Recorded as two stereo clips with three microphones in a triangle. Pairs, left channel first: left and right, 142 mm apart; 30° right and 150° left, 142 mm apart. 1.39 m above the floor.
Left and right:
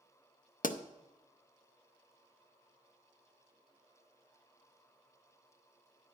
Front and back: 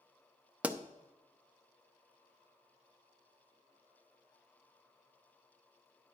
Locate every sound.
0.6 s a pop: 70° left, 0.5 m